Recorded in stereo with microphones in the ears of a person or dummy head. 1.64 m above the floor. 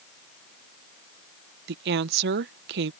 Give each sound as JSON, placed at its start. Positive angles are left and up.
{"t": 1.7, "sound": "a woman speaking", "side_deg": -60}